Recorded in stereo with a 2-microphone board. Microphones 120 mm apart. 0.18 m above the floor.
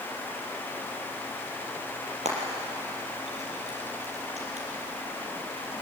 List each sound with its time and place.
2.1 s frying: 70° right (ahead or behind), 5 m